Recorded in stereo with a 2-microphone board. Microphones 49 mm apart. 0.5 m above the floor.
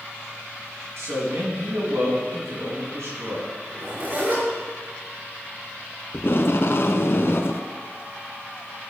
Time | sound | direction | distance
1.0 | a man speaking | 70° right (ahead or behind) | 4.5 m
3.7 | a zipper | 40° right (ahead or behind) | 5.5 m
6.1 | tape being pulled | 55° left (ahead or behind) | 0.7 m